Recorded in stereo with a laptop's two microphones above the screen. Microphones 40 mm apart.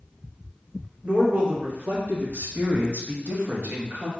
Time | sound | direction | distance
1.0 | a man speaking | 45° right (ahead or behind) | 1.9 m